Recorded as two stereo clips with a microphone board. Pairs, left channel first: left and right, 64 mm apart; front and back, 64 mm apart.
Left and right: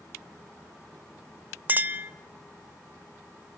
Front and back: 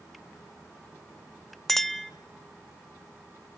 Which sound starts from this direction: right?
A clink, at 1.7 s.